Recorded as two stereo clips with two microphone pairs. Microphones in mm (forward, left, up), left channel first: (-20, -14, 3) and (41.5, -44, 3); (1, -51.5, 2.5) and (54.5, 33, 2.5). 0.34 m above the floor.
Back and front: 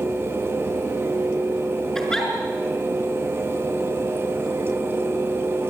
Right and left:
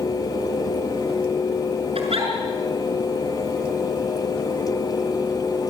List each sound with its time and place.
1.9 s a giggle: 70° left, 5.5 m